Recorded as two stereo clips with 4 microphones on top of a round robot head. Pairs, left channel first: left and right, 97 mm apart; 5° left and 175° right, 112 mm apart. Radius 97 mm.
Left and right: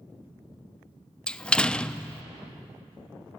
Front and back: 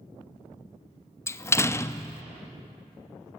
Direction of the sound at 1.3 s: 25° left.